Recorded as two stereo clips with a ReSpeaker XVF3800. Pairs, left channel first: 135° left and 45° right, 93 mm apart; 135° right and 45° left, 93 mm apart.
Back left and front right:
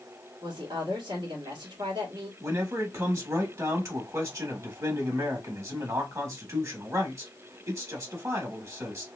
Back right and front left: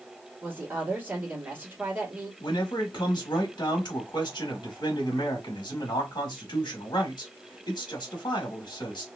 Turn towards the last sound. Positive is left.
turn(degrees=-100)